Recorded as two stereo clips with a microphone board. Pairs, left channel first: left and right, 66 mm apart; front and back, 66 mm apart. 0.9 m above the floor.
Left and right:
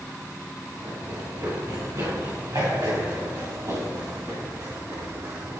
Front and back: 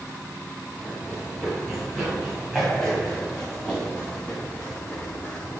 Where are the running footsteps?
95° right, 4 m; by 5.6 s 60° right, 5 m.